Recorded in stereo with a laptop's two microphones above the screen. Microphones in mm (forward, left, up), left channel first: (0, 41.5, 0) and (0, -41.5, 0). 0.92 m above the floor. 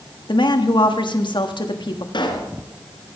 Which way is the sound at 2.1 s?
75° left (ahead or behind).